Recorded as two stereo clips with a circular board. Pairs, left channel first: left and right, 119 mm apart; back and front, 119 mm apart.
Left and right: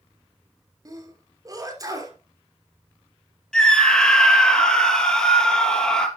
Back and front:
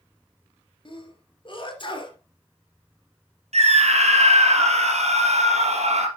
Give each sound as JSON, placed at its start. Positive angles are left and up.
{"t": 0.8, "sound": "a sneeze", "azimuth_deg": -145, "distance_m": 3.0}
{"t": 3.5, "sound": "a scream", "azimuth_deg": 5, "distance_m": 3.0}